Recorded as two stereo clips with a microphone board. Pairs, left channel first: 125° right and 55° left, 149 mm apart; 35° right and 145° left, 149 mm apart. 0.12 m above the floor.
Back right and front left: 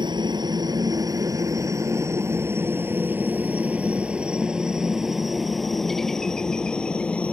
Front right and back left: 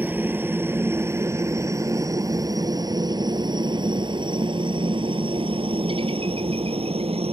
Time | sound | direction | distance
0.0 | a helicopter | 80° left | ?